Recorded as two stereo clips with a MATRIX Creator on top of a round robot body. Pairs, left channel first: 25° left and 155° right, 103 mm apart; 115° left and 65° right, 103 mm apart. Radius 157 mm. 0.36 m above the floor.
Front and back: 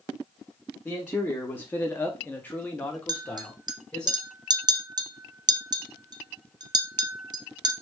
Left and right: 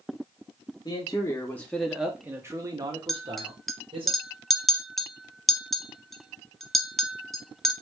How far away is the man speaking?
About 1.1 m.